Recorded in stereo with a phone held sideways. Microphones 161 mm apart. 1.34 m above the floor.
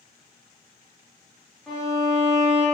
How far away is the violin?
About 0.9 m.